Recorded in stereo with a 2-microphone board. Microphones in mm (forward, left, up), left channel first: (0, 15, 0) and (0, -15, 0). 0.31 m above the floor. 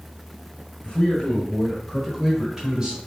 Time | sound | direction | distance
0.8 | a man speaking | 35° left (ahead or behind) | 1.9 m